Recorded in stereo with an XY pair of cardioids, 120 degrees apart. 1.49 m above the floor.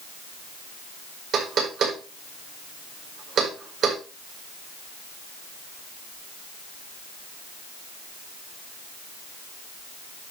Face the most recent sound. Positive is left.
turn(degrees=-55)